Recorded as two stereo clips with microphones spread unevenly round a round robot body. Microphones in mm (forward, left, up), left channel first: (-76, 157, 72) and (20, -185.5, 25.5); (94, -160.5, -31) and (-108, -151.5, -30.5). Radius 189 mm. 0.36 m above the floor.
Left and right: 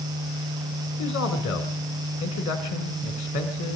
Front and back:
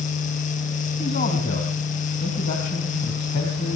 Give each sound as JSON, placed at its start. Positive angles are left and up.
{"t": 1.0, "sound": "a man speaking", "azimuth_deg": 50, "distance_m": 2.0}